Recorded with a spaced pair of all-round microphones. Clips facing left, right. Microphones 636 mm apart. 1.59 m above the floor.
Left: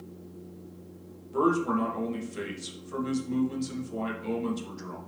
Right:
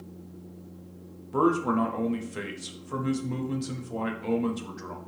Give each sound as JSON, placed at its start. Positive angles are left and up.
{"t": 1.3, "sound": "a man speaking", "side_deg": -75, "distance_m": 0.7}